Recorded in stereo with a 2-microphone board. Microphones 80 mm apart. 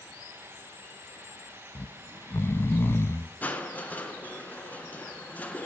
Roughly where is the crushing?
Left.